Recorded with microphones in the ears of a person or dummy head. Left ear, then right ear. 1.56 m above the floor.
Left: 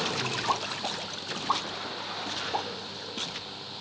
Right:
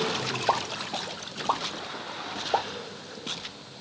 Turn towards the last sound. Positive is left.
turn(degrees=-15)  # may be behind; listen again after turning